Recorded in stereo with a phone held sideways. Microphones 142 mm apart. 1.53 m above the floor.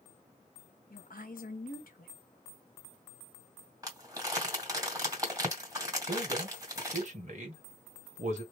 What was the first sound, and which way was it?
A woman speaking, 80° left.